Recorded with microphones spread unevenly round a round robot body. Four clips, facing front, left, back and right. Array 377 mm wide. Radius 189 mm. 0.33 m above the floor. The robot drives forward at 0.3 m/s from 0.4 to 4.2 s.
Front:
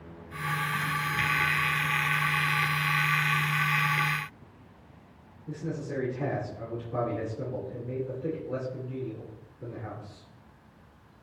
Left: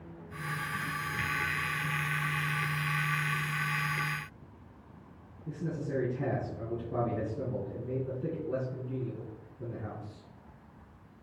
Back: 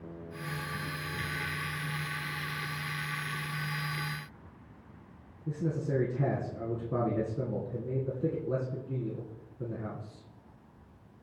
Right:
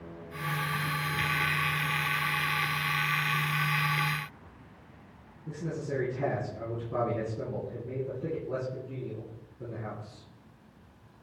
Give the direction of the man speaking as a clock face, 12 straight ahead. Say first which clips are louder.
Right 1 dB, back 2 dB; 6 o'clock.